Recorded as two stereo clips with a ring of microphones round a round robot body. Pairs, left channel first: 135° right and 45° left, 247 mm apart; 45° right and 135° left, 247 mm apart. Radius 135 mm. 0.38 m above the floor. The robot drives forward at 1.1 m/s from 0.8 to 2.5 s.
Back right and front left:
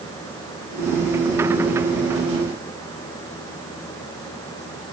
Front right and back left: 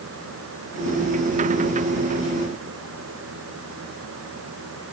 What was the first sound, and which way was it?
Only background noise.